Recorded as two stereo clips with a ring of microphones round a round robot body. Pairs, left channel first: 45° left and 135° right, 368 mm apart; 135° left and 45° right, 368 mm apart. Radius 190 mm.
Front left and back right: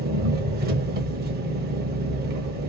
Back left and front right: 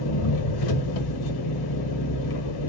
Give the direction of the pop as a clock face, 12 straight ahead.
No pop in this recording.